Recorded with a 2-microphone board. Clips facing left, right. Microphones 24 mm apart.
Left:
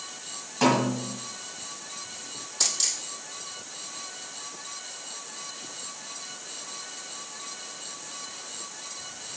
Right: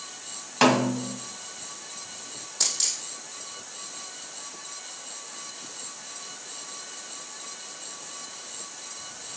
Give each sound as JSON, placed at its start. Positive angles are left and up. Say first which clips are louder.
{"t": 0.6, "sound": "a snare drum", "louder": "right 2 dB", "side_deg": -45, "distance_m": 1.3}
{"t": 2.6, "sound": "a dropped coin", "louder": "even", "side_deg": 10, "distance_m": 3.0}